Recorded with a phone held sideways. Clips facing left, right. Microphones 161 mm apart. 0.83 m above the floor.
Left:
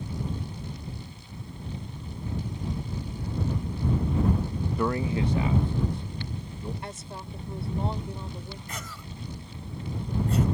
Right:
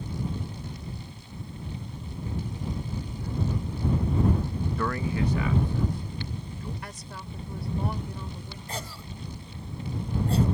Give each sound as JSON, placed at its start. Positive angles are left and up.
{"t": 4.8, "sound": "a man speaking", "side_deg": 15}
{"t": 6.8, "sound": "a woman speaking", "side_deg": 25}
{"t": 8.7, "sound": "a cough", "side_deg": -30}